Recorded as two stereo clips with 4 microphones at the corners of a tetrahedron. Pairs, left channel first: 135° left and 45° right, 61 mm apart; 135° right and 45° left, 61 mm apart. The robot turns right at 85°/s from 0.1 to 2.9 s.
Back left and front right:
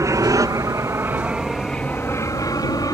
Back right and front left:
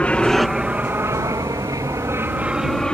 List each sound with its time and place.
0.0 s an aircraft: 65° right; by 3.0 s 150° left